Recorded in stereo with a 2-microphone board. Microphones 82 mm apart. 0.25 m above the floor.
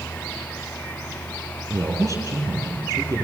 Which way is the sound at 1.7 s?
40° right (ahead or behind).